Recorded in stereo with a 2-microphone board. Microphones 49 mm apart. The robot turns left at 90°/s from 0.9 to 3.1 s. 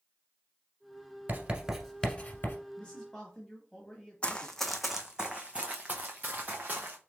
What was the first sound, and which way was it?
Writing, 45° right (ahead or behind).